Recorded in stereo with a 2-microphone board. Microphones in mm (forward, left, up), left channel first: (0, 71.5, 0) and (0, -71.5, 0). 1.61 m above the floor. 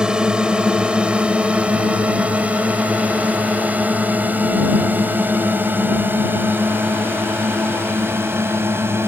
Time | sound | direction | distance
0.0 | a drone | 5° right (ahead or behind) | ?